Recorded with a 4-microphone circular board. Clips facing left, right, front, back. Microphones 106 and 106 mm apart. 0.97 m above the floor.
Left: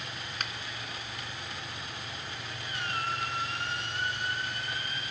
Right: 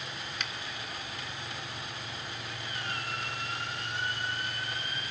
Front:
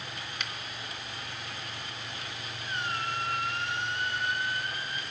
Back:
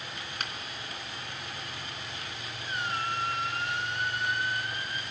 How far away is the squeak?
About 4.5 m.